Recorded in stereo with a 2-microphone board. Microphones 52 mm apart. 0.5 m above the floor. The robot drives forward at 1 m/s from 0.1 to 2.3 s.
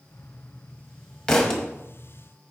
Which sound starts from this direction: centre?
A thud, at 1.3 s.